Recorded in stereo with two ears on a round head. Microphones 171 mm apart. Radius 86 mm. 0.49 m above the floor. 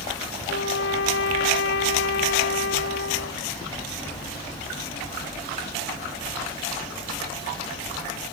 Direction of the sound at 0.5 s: 70° left (ahead or behind).